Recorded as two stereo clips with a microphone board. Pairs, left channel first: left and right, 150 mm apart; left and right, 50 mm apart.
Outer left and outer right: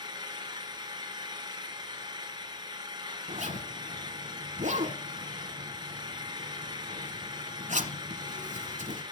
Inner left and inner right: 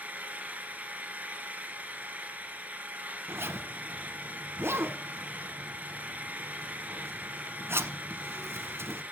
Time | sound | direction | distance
0.0 | an engine running | 30° right (ahead or behind) | 1.6 m
3.3 | a zipper | 60° right (ahead or behind) | 1.4 m